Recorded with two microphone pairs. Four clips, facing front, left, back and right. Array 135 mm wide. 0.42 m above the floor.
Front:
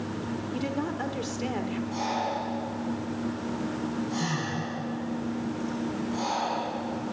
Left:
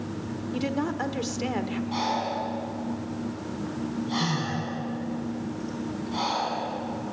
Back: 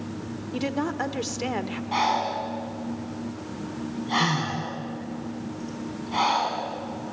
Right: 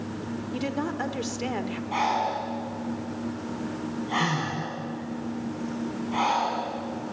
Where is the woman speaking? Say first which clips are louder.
Left 2 dB, back 5 dB; straight behind, 1.4 m.